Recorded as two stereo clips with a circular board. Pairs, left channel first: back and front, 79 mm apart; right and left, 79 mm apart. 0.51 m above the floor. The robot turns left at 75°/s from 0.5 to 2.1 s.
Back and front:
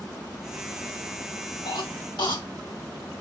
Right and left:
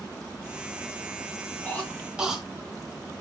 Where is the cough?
155° right, 4.5 m; by 3.2 s 170° left, 4.5 m.